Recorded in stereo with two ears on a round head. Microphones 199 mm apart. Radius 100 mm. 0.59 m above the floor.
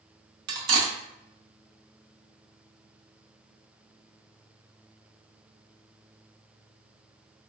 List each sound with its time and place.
0.5 s cutlery clinking: 70° right (ahead or behind), 0.6 m